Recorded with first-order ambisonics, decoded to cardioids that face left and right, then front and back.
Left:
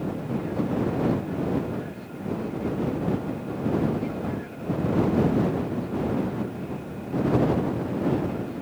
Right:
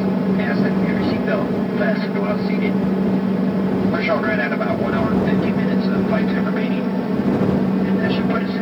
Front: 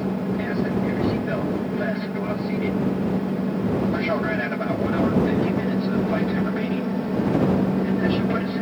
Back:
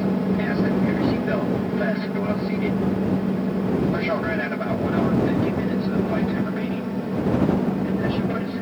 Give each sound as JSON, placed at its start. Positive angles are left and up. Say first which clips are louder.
{"t": 0.0, "sound": "an aircraft", "louder": "right 10 dB, back 2 dB", "azimuth_deg": -100}